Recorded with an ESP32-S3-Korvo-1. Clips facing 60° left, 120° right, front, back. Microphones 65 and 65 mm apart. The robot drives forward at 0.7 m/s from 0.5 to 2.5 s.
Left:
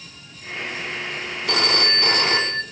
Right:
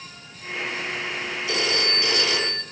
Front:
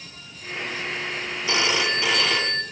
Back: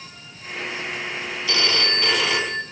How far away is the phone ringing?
About 1.3 m.